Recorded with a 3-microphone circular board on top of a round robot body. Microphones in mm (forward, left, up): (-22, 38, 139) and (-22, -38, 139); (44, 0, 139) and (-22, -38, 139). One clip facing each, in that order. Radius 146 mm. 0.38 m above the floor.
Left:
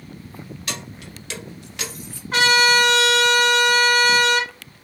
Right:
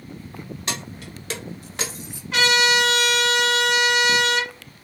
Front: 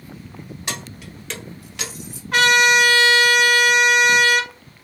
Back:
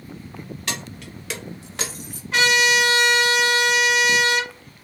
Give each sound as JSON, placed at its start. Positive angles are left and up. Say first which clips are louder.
{"t": 0.7, "sound": "keys jangling", "louder": "right 2 dB, front 1 dB", "azimuth_deg": -40, "distance_m": 1.1}
{"t": 2.3, "sound": "a trumpet", "louder": "left 3 dB, front 3 dB", "azimuth_deg": 50, "distance_m": 1.3}